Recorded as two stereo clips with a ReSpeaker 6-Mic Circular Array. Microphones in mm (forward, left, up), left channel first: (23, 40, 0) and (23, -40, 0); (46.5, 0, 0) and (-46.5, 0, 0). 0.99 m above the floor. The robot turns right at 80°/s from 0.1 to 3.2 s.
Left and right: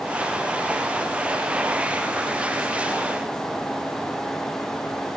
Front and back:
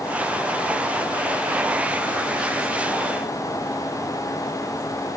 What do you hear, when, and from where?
Only background noise.